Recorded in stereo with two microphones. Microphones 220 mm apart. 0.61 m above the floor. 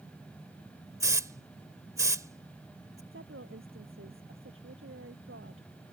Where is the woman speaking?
70° right (ahead or behind).